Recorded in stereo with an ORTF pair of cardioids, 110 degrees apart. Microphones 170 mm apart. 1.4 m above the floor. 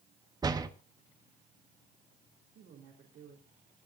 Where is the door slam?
25° right, 1.6 m.